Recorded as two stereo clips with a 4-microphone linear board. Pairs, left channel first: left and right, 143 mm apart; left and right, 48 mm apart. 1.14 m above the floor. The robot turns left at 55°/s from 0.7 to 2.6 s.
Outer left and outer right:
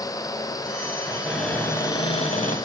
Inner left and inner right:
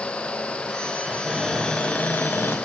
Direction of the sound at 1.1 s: 165° right.